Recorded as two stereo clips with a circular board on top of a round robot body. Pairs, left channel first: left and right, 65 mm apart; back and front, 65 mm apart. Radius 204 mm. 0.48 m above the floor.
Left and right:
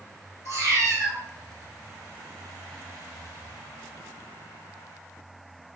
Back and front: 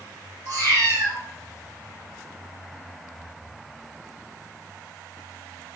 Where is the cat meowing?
130° right, 4 m.